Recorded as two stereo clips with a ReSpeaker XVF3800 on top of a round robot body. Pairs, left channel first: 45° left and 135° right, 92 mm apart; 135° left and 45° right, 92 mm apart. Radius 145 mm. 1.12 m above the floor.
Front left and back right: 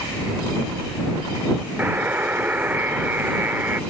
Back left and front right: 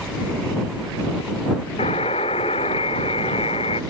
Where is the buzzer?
150° left.